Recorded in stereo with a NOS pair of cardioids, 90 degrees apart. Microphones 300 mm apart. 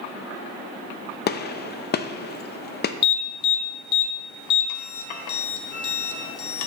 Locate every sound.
1.3 s a gunshot: 35° left, 0.6 m
3.0 s an alarm: 70° left, 1.1 m